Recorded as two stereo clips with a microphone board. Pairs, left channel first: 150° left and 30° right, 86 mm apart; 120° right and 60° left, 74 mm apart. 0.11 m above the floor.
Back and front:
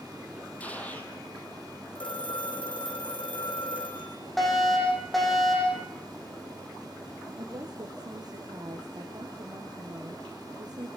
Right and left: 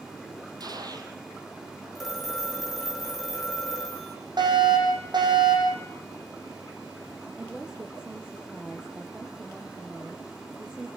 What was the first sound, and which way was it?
A gunshot, 80° left.